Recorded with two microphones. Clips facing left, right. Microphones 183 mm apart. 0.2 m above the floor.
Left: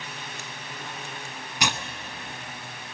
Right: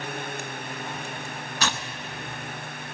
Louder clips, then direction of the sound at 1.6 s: Left 1 dB; 15° left (ahead or behind).